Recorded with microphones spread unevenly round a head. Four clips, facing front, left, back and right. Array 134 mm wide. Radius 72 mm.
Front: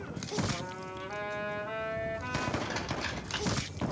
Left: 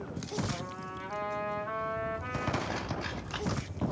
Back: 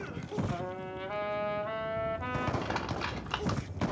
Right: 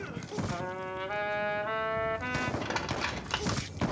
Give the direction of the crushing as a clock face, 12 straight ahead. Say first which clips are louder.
Right 2 dB, back 1 dB; 4 o'clock.